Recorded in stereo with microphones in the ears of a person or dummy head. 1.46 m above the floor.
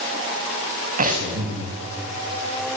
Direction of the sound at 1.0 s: 50° right (ahead or behind).